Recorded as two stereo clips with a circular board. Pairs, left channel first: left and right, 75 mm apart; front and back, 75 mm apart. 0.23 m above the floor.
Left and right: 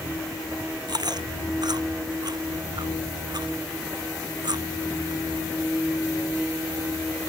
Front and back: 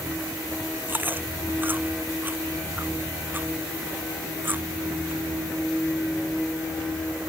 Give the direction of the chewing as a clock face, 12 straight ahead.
4 o'clock.